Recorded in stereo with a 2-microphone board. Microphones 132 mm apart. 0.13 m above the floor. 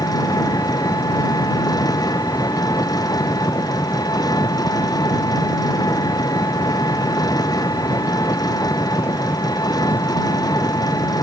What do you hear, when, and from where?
0.0 s an engine running: 30° left (ahead or behind)